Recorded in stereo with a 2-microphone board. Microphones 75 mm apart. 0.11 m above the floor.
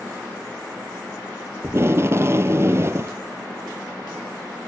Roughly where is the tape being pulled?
Right.